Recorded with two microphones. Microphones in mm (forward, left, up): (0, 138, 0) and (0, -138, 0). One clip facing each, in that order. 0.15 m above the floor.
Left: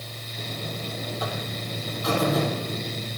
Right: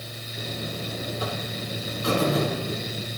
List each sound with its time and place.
0.4 s a buzzer: 30° right (ahead or behind), 5 m